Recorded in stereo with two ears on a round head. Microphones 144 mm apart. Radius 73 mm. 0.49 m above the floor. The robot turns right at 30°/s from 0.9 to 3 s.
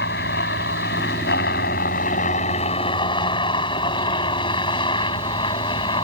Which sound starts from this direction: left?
A helicopter, at 0.0 s.